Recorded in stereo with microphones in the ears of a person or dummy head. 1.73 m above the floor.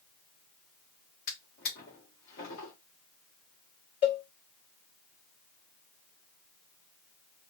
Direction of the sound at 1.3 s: 45° left (ahead or behind).